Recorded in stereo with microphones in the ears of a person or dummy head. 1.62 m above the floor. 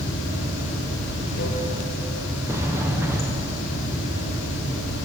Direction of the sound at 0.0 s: 65° left (ahead or behind).